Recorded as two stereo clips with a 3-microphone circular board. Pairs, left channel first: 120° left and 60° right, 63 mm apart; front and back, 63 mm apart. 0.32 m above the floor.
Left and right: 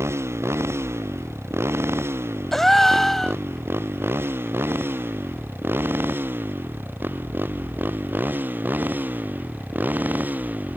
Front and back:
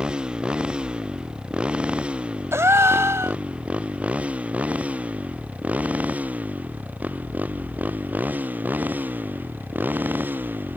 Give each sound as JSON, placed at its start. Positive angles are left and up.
{"t": 0.0, "sound": "a motorcycle", "azimuth_deg": -105}
{"t": 2.5, "sound": "a gasp", "azimuth_deg": -155}